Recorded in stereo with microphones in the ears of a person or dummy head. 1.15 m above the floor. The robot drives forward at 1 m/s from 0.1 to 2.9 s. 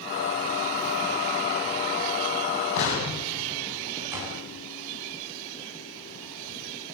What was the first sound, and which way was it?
An explosion, 65° left (ahead or behind).